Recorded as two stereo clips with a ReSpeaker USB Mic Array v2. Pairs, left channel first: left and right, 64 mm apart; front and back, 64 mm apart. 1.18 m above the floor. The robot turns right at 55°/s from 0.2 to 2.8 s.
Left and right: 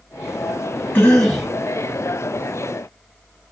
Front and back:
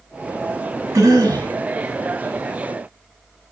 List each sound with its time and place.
0.9 s a cough: 150° left, 1.4 m; by 1.5 s straight behind, 1.4 m